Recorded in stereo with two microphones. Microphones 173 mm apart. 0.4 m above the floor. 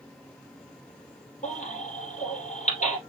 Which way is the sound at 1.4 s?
50° left (ahead or behind).